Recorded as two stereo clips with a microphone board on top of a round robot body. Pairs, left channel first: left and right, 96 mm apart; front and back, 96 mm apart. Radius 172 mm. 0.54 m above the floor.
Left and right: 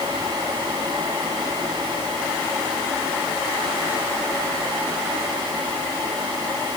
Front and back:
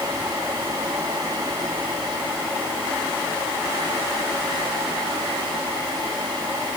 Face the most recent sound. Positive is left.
No sound to turn to.